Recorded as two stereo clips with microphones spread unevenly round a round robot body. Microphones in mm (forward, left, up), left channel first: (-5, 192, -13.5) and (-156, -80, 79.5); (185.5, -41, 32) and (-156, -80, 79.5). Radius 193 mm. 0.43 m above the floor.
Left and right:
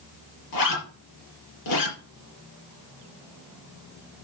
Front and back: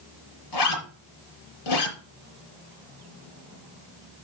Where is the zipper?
40° left, 5 m.